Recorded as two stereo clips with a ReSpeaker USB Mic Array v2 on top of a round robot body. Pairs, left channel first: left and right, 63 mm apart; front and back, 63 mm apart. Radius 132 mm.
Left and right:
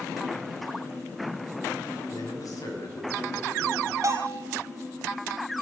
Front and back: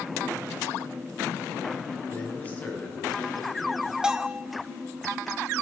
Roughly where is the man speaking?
Ahead left.